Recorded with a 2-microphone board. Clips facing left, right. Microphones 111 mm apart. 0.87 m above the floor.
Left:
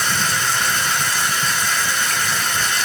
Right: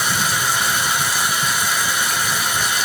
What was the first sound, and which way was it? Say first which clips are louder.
Running water: right 1 dB; 10° right (ahead or behind).